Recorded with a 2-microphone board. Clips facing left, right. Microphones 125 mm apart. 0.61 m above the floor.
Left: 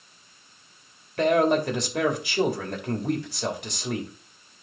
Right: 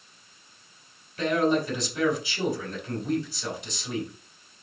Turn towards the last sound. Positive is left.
turn(degrees=70)  # may be behind; listen again after turning